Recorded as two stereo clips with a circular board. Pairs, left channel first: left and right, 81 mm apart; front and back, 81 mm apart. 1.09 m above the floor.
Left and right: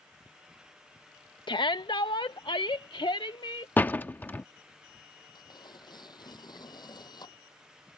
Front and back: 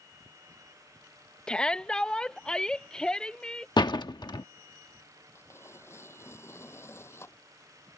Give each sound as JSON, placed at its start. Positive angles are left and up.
{"t": 1.5, "sound": "a shout", "azimuth_deg": 80}
{"t": 3.8, "sound": "a door slam", "azimuth_deg": 25}
{"t": 5.3, "sound": "tearing paper", "azimuth_deg": 60}